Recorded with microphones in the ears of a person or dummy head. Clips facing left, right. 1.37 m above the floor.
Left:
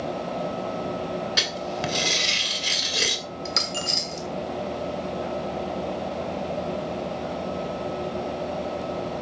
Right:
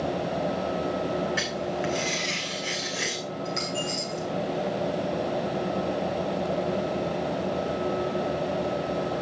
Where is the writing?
55° left (ahead or behind), 2.5 m.